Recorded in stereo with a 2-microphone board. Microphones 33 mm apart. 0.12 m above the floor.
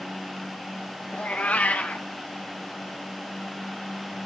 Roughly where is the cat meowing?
Left.